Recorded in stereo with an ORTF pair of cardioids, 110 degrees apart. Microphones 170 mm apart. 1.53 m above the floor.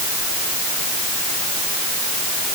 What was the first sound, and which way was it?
Only background noise.